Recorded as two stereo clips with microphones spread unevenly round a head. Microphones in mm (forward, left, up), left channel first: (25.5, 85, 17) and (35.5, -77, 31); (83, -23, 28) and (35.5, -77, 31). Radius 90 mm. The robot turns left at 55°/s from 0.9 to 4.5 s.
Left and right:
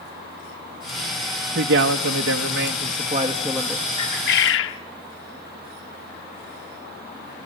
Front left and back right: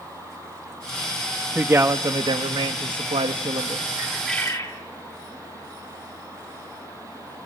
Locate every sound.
1.6 s a man speaking: 55° right, 0.7 m; by 3.9 s straight behind, 0.7 m
4.0 s a bird: 155° left, 0.9 m; by 4.8 s 125° left, 0.9 m